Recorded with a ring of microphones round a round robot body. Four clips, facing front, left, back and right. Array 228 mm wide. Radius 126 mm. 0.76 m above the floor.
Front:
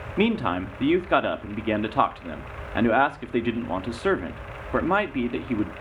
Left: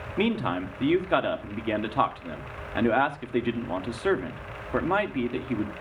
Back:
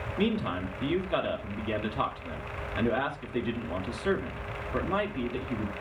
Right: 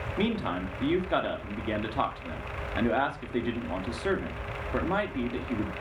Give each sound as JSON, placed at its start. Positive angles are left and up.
{"t": 0.2, "sound": "a man speaking", "azimuth_deg": 20, "distance_m": 1.6}